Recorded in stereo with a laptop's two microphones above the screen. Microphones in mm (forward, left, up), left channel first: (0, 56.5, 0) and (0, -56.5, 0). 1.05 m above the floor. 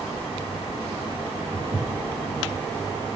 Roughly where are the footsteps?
Centre.